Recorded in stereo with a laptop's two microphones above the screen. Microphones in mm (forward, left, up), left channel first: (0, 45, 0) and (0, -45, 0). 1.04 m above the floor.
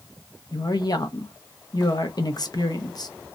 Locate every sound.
0.5 s a woman speaking: 50° left (ahead or behind), 0.7 m